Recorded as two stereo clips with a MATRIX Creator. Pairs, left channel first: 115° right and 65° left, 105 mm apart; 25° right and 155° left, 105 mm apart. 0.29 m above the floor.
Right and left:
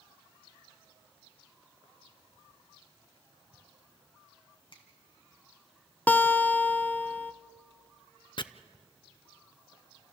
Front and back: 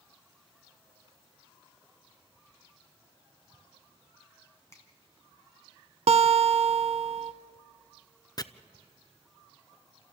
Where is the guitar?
175° left, 0.7 m.